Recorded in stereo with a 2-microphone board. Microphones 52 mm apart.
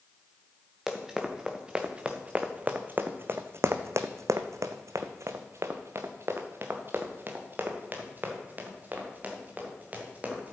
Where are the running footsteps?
10° right (ahead or behind), 1.9 m; by 10.5 s 30° right (ahead or behind), 3.5 m.